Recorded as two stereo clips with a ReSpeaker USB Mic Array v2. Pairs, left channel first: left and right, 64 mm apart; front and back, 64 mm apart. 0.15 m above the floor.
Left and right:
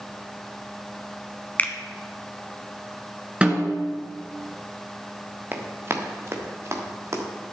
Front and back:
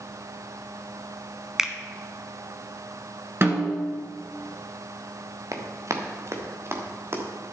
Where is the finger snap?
110° left, 1.1 m.